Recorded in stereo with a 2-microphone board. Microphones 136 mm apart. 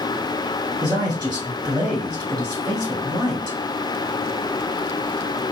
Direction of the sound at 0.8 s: 30° right (ahead or behind).